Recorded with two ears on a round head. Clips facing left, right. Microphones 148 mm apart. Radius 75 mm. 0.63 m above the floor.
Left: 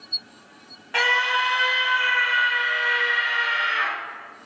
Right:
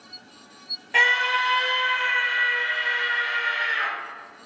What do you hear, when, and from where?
0.9 s a scream: 10° right (ahead or behind), 1.5 m; by 3.9 s 15° right (ahead or behind), 3 m